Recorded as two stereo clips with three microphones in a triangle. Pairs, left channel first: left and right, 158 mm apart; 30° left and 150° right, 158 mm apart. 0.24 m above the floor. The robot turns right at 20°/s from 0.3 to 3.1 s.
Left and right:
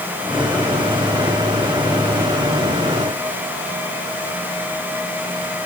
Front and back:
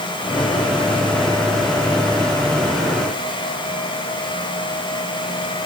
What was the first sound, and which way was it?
Only background noise.